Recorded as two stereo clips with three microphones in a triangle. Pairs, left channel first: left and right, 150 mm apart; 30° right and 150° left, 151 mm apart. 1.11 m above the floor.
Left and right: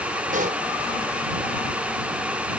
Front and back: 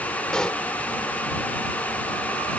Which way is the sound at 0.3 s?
115° right.